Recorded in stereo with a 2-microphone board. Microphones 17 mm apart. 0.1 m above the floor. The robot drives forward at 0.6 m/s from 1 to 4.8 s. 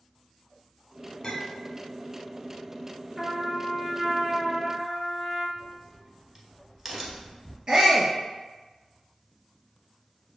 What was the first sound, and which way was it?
A clink, 25° left (ahead or behind).